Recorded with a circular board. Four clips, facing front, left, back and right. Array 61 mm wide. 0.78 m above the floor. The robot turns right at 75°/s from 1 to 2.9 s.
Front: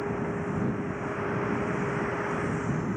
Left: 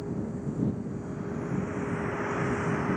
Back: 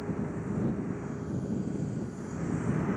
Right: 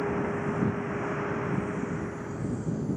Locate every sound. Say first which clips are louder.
0.0 s a vehicle: right 5 dB, front 4 dB; 60° right; by 3.0 s 85° left